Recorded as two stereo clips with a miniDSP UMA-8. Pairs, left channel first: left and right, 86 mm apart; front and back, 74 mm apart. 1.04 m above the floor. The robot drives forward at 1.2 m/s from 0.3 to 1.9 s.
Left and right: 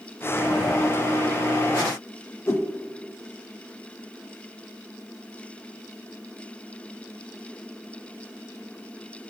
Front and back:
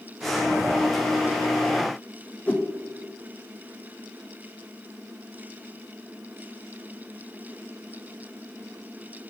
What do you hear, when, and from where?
2.5 s a whoosh: 55° left, 0.9 m